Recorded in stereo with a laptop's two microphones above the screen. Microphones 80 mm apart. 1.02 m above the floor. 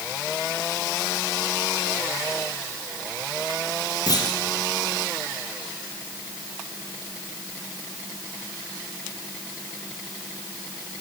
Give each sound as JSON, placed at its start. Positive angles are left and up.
{"t": 4.1, "sound": "a clunk", "side_deg": 55, "distance_m": 2.0}